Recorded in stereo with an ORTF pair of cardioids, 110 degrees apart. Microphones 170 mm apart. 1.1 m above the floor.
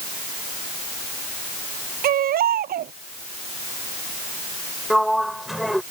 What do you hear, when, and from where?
2.0 s a baby crying: 60° right
4.9 s a sliding door: straight ahead